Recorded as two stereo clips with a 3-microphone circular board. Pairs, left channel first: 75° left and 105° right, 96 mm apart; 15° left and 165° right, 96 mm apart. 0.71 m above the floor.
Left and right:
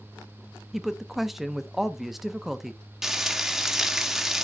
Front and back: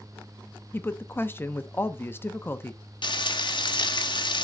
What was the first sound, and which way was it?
A woman speaking, 20° right.